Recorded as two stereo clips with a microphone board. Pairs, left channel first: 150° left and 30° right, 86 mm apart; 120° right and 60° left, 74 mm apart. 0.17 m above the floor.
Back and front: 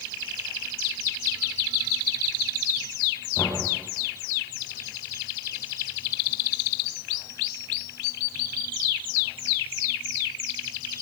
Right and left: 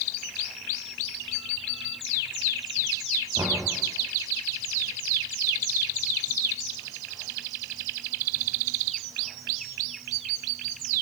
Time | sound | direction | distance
3.4 | knocking | 90° left | 7 m